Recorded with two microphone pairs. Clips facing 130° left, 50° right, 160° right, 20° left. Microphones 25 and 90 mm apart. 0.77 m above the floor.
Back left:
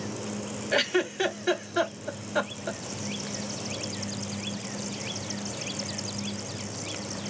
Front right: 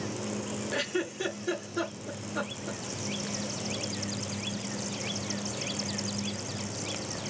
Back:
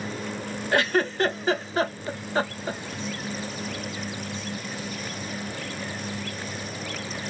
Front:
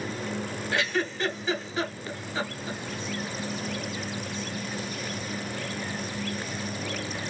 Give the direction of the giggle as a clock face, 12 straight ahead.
7 o'clock.